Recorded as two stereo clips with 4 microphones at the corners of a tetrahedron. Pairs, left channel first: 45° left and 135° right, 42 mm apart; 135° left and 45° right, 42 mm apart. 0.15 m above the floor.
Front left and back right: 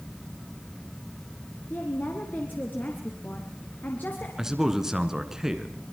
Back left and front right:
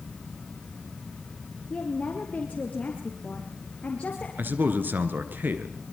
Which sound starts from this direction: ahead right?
A man speaking, at 4.4 s.